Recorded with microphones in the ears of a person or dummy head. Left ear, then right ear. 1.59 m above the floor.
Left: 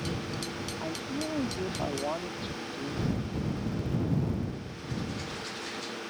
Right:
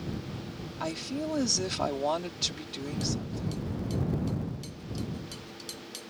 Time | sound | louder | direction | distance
0.8 | a woman speaking | right 4 dB | 75° right (ahead or behind) | ?